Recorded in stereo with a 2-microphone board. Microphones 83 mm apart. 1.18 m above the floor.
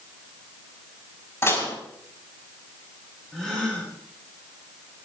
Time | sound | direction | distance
1.4 | dishes clattering | 30° left (ahead or behind) | 5.5 m
3.3 | a gasp | 5° left (ahead or behind) | 8.5 m